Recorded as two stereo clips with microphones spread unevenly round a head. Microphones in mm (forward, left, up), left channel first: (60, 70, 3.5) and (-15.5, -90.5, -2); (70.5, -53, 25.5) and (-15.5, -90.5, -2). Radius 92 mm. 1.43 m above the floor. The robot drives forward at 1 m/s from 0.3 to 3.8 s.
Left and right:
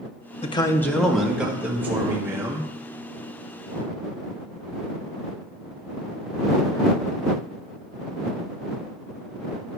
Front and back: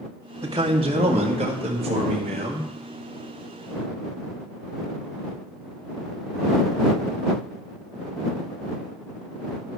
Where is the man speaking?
125° left, 0.7 m; by 2.7 s 170° left, 2.5 m.